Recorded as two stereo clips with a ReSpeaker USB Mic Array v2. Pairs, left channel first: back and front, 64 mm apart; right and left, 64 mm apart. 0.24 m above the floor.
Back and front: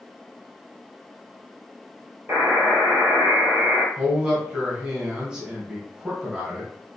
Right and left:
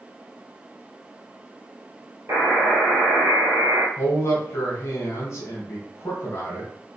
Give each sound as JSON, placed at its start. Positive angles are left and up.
{"t": 2.3, "sound": "a buzzer", "azimuth_deg": 50, "distance_m": 1.9}
{"t": 4.0, "sound": "a man speaking", "azimuth_deg": -70, "distance_m": 1.6}